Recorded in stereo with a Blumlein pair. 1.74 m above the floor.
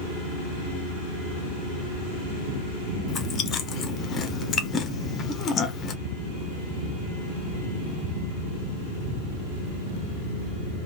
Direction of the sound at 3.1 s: 25° left.